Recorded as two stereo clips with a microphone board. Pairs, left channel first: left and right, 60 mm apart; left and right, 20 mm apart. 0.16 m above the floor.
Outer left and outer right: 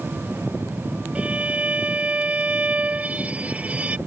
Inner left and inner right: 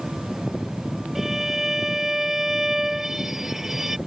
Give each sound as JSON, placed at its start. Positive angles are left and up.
{"t": 1.1, "sound": "a violin", "side_deg": -20}